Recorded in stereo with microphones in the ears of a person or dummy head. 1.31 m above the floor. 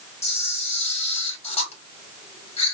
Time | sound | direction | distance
0.2 | a camera shutter | 40° left (ahead or behind) | 4.5 m